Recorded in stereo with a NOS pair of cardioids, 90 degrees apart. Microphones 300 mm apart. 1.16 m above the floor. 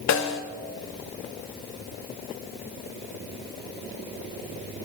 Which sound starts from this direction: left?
A snare drum, at 0.1 s.